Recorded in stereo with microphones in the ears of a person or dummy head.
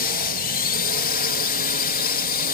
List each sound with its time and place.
0.0 s a drone: 50° left (ahead or behind)